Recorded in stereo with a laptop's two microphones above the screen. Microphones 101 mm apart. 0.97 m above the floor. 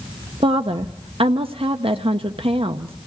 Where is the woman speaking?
75° right (ahead or behind), 0.8 m.